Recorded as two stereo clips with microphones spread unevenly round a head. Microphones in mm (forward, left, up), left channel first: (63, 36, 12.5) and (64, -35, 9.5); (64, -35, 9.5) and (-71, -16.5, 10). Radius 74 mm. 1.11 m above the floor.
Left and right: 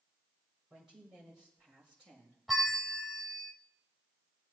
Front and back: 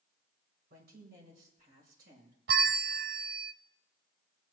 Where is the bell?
Straight behind, 0.5 m.